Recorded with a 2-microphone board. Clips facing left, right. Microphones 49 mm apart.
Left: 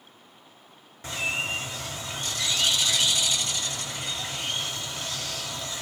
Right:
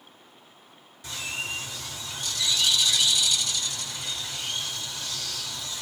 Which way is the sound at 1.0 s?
35° left (ahead or behind).